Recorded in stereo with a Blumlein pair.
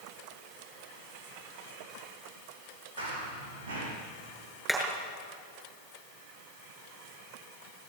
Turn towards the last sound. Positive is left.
turn(degrees=-5)